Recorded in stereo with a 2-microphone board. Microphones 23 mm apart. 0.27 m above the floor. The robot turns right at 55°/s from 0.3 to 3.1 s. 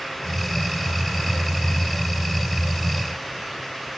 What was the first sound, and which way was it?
Only background noise.